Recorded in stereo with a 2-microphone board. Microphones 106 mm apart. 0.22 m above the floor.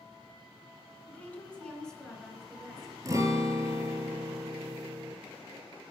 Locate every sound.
1.1 s a woman speaking: 15° left (ahead or behind), 2.5 m; by 3.0 s centre (ahead or behind), 4 m
3.0 s a guitar: 30° right (ahead or behind), 1.4 m